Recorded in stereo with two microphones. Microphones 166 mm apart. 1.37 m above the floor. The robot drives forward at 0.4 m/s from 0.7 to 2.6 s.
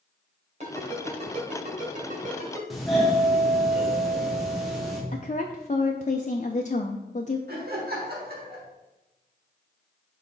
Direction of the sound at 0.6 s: 40° right (ahead or behind).